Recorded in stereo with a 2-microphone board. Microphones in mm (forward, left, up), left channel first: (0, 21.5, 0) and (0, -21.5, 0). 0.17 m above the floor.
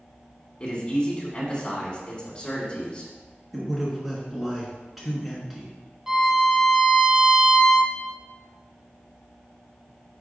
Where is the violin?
15° right (ahead or behind), 1.0 m.